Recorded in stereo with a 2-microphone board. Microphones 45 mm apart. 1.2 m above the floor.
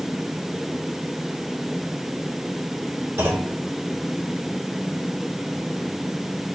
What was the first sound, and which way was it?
A clunk, 65° right (ahead or behind).